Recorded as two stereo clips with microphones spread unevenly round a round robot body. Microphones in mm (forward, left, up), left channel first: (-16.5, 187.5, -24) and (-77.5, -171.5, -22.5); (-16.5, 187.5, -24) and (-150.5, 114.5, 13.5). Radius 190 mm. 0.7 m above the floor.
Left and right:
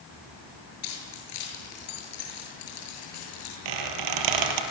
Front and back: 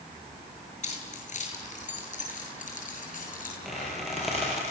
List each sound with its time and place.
0.8 s keys jangling: 65° left, 9 m; by 3.5 s 55° left, 9.5 m
3.6 s a squeak: 65° right, 4 m